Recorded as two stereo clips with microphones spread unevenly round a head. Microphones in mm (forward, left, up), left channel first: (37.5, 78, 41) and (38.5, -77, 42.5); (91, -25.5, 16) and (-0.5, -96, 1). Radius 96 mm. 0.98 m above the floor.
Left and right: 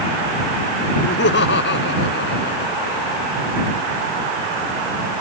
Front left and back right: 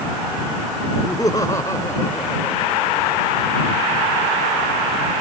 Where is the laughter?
110° left; by 3.3 s 115° left.